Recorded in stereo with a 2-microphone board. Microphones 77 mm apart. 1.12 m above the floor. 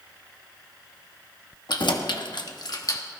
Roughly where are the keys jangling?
Left.